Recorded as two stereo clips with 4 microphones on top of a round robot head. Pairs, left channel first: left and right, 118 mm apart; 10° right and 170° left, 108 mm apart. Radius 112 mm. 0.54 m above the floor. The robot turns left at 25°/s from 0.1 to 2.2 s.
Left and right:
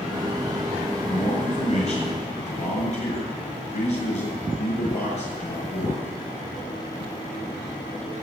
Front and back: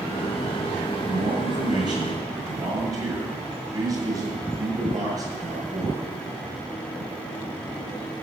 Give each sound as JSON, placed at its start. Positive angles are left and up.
{"t": 1.1, "sound": "a man speaking", "azimuth_deg": 145, "distance_m": 8.0}